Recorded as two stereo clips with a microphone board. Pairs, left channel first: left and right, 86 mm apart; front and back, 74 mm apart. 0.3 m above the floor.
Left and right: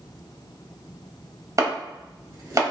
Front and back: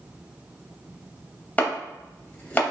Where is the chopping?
65° right, 0.8 m.